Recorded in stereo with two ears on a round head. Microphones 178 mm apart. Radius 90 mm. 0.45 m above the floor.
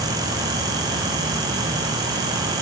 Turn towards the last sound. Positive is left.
No sound to turn to.